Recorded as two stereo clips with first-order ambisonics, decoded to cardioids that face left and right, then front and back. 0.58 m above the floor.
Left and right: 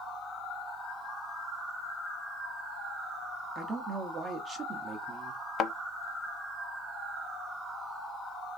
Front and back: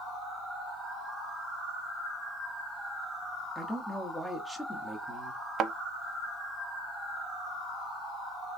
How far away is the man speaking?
About 0.9 m.